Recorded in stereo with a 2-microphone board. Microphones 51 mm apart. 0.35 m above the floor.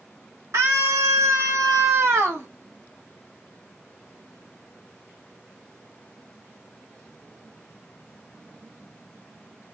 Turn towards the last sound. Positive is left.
turn(degrees=-50)  # may be behind; listen again after turning